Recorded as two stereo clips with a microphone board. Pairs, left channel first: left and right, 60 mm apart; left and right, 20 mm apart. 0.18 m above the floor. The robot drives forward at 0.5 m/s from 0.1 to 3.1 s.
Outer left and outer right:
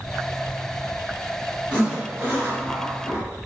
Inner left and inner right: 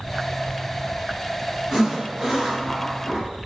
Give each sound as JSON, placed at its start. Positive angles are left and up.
{"t": 1.7, "sound": "a zipper", "side_deg": -20, "distance_m": 2.0}